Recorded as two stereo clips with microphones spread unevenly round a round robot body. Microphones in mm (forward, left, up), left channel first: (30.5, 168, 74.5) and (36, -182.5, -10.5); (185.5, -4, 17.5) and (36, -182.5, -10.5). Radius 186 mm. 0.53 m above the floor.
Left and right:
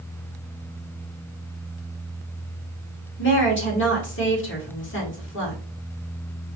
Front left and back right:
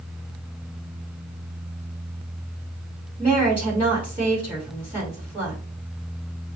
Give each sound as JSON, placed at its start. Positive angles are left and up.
{"t": 3.2, "sound": "a woman speaking", "azimuth_deg": 155, "distance_m": 1.9}